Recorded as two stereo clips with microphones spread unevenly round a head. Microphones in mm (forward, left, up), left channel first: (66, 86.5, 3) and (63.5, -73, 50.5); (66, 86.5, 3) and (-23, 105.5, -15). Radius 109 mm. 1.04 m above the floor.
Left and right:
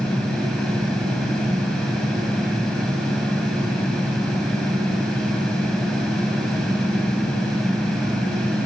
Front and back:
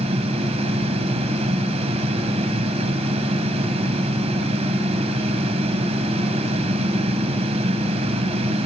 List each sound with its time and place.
0.0 s a fan: 175° right, 2 m